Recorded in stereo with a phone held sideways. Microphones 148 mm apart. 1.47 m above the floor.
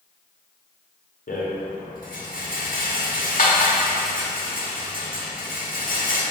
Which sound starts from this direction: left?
A rattle, at 1.3 s.